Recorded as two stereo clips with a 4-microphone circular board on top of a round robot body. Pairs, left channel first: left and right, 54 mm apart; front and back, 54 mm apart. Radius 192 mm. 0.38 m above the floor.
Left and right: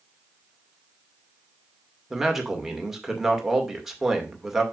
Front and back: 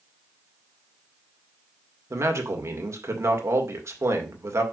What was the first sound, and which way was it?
A man speaking, 175° right.